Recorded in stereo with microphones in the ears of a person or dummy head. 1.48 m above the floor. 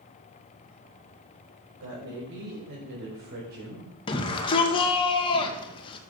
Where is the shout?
30° left (ahead or behind), 2.0 m.